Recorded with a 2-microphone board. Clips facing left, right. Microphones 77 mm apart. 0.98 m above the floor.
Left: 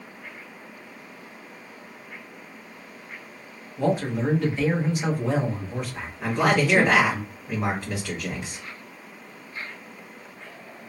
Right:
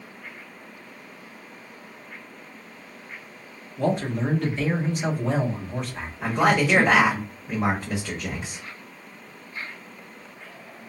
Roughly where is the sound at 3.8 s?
Centre.